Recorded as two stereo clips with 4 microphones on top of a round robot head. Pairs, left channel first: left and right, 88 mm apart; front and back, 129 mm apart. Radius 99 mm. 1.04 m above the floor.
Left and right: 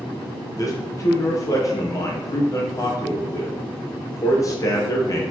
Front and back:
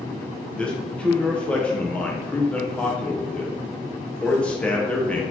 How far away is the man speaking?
About 0.8 m.